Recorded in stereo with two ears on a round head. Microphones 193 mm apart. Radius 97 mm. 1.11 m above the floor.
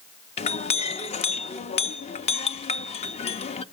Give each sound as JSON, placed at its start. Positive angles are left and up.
{"t": 0.4, "sound": "a clink", "side_deg": 30, "distance_m": 0.7}